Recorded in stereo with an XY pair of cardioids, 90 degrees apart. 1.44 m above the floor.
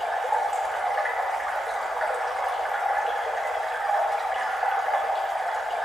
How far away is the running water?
About 2.5 m.